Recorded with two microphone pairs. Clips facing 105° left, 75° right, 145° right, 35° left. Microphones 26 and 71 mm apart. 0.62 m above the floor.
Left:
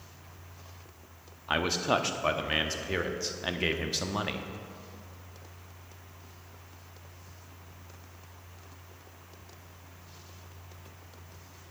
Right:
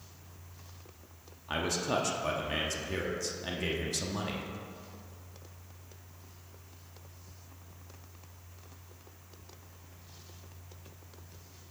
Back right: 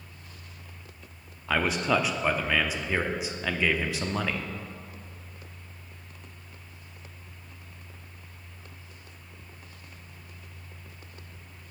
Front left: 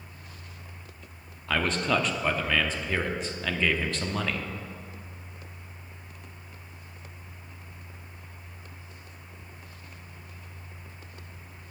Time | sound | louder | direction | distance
1.5 | a man speaking | left 4 dB, back right 1 dB | 140° left | 0.7 m